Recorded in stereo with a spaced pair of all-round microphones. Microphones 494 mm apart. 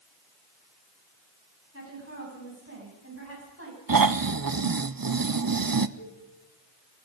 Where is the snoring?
45° right (ahead or behind), 0.7 m.